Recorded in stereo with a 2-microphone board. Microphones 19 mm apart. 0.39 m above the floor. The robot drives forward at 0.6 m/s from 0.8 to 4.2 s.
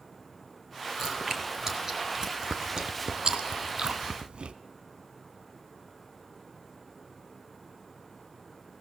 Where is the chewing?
20° right (ahead or behind), 2.5 m; by 4.5 s 60° right (ahead or behind), 1.1 m.